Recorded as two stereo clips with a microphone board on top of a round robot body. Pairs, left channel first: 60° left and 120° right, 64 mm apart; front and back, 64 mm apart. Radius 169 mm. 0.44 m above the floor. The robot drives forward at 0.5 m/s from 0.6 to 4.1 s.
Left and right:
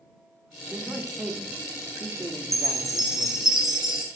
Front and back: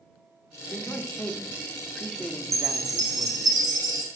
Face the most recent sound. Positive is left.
turn(degrees=160)